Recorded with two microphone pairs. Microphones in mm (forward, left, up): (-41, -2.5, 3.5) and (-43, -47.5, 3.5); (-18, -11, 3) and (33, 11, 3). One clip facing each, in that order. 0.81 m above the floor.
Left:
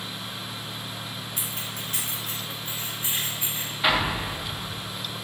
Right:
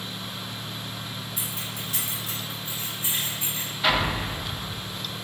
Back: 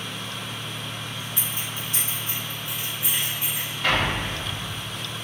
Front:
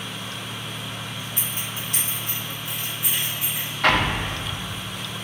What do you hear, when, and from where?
1.4 s keys jangling: 60° left, 1.2 m; by 3.7 s 35° left, 3.5 m
3.8 s an explosion: 5° left, 0.8 m